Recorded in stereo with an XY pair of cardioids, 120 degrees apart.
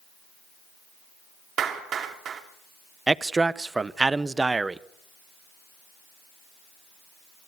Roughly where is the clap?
Ahead right.